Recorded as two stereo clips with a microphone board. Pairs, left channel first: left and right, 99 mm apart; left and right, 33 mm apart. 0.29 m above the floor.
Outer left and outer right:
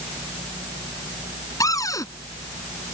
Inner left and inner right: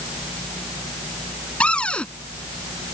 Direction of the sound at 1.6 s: 35° left (ahead or behind).